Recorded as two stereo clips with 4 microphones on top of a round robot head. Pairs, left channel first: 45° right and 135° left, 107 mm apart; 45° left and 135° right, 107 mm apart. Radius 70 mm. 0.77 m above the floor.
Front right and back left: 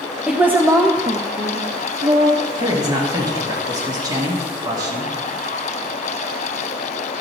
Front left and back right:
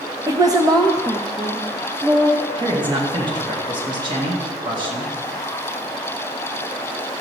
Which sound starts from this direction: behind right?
A woman speaking, at 0.3 s.